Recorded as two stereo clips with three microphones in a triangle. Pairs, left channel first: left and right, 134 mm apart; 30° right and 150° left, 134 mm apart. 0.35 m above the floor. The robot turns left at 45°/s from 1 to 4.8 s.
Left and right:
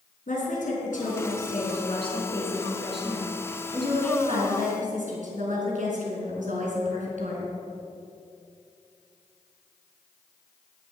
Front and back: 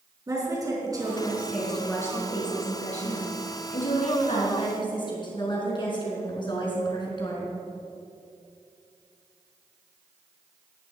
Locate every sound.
0.3 s a woman speaking: 90° left, 4 m; by 7.5 s 85° right, 4 m